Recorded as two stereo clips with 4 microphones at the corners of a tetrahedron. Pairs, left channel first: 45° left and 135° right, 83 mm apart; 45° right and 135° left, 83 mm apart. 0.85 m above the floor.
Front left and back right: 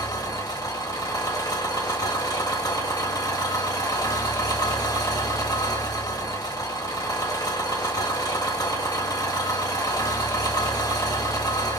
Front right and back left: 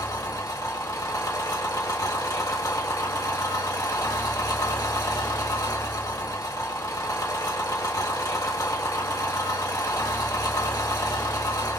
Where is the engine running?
Straight ahead, 1.2 m.